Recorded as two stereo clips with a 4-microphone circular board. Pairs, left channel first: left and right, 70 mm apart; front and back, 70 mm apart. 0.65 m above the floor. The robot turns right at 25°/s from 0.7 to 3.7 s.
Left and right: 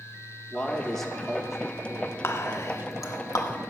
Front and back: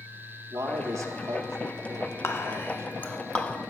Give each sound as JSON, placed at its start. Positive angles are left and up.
{"t": 0.5, "sound": "a man speaking", "azimuth_deg": 165, "distance_m": 0.8}
{"t": 2.2, "sound": "whispering", "azimuth_deg": 40, "distance_m": 0.9}